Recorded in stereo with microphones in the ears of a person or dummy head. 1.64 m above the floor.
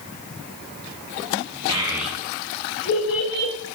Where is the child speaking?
25° right (ahead or behind), 0.5 m; by 3.5 s 55° left (ahead or behind), 0.9 m.